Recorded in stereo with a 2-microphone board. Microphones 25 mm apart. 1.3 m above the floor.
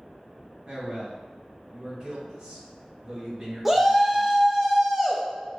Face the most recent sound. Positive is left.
turn(degrees=-5)  # may be behind; listen again after turning